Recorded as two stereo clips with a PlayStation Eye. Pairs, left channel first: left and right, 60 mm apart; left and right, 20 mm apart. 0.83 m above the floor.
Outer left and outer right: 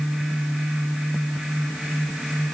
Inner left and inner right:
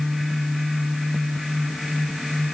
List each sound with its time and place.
Only background noise.